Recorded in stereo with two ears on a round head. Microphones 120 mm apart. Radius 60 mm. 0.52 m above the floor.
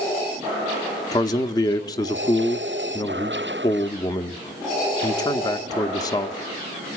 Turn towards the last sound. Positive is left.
turn(degrees=25)  # may be behind; listen again after turning